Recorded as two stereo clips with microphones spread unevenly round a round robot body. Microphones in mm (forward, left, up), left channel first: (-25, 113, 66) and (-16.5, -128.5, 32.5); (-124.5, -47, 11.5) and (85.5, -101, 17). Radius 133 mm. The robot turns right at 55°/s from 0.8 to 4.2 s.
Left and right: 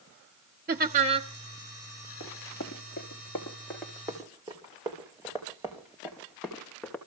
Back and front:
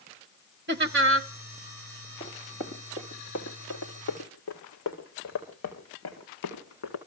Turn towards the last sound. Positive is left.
turn(degrees=180)